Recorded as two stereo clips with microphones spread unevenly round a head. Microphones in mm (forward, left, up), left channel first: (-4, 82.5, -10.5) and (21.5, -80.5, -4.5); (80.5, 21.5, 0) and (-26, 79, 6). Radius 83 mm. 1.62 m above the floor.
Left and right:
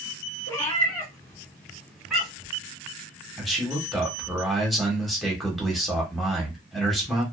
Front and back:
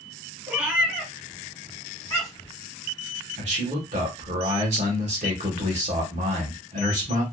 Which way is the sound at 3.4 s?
170° right.